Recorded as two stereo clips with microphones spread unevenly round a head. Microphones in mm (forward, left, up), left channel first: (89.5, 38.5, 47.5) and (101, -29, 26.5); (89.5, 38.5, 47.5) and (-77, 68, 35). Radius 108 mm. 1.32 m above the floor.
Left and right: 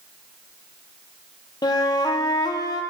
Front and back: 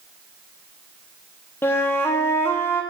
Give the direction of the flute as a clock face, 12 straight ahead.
10 o'clock.